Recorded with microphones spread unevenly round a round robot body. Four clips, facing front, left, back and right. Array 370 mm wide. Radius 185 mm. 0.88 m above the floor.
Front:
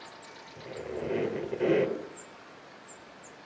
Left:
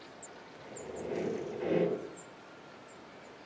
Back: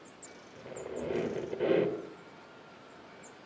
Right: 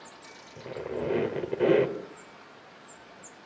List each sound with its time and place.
0.6 s a squeak: 80° right, 2.5 m